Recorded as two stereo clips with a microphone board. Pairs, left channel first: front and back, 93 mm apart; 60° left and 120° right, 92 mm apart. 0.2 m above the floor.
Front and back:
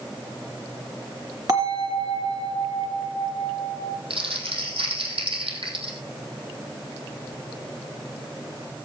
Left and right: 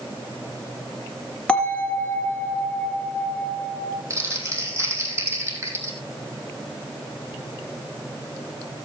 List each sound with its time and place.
1.5 s a bell: 140° left, 2.5 m
4.1 s crumpling: straight behind, 3 m